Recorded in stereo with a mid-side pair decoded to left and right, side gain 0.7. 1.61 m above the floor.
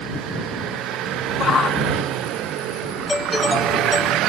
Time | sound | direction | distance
1.4 | a shout | 30° left | ?
3.1 | a doorbell | 15° left | ?